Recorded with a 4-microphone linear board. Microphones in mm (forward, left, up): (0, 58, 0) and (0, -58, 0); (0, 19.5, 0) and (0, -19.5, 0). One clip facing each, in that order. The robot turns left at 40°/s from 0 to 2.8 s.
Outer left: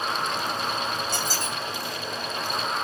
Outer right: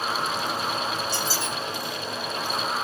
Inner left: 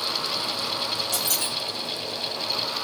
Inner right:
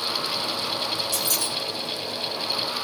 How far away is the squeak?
About 1.7 m.